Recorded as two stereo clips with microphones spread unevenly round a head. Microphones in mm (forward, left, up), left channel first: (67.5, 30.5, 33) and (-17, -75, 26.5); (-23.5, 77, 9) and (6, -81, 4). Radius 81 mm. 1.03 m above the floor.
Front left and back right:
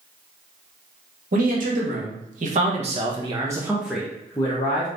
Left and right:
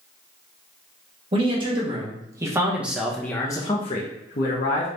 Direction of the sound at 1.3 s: 135° right.